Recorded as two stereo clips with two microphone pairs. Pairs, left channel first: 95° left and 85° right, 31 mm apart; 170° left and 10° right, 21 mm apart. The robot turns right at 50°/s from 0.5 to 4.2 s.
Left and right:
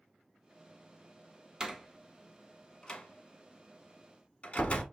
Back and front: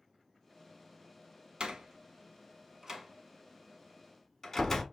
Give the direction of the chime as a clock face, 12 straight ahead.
I don't hear a chime.